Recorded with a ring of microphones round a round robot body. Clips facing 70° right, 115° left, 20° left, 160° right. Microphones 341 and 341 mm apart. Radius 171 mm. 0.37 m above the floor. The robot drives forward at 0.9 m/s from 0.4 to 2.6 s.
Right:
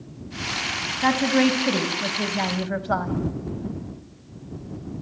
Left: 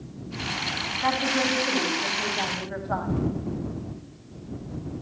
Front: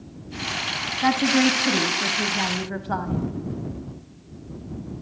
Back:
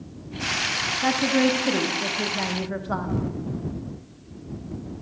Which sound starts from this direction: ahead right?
A woman speaking, at 1.0 s.